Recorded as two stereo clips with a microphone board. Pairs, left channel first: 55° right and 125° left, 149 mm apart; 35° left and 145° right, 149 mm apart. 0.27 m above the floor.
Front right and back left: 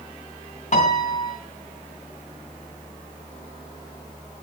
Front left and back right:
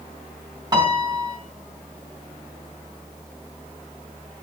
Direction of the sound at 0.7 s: 85° right.